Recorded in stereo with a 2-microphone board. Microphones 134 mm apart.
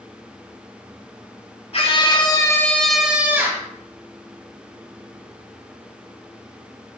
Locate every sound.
1.7 s a scream: 45° left (ahead or behind), 2 m; by 3.7 s 25° right (ahead or behind), 2.5 m